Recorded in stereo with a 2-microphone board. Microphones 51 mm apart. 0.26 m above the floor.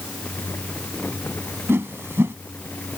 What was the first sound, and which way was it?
A whoosh, 55° right (ahead or behind).